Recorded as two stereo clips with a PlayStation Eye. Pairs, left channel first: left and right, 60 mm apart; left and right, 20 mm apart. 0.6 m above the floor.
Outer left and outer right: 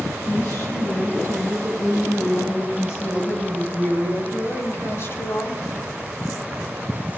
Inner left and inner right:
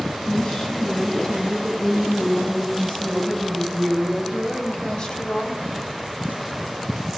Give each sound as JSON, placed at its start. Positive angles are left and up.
{"t": 0.3, "sound": "a woman speaking", "side_deg": 50, "distance_m": 5.0}